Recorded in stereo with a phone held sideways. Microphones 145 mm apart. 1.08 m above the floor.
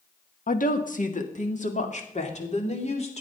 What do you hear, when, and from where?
0.5 s a woman speaking: 70° left (ahead or behind), 1.3 m; by 3.2 s 50° left (ahead or behind), 3 m